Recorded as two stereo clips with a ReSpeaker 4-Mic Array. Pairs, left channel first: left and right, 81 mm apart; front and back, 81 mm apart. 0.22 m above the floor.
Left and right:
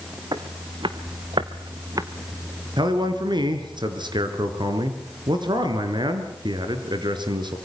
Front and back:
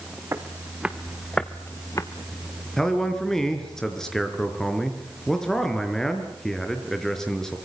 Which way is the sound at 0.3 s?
120° right.